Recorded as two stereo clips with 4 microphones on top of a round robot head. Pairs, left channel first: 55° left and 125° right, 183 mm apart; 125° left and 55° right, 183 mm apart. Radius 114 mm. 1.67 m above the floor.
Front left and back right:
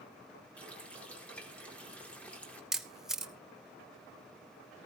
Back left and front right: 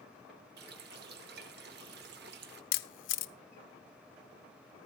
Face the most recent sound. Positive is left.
turn(degrees=145)